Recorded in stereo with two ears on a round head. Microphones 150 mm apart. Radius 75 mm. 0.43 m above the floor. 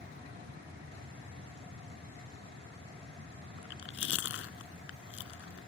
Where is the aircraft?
65° right (ahead or behind); by 5.7 s 60° right (ahead or behind).